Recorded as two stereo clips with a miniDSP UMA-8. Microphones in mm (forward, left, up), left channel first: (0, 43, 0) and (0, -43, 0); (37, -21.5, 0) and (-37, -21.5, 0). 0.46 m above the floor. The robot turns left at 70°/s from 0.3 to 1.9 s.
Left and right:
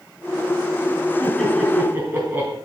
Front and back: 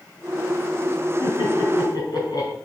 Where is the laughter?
25° left, 4 m; by 2.5 s 25° right, 4 m.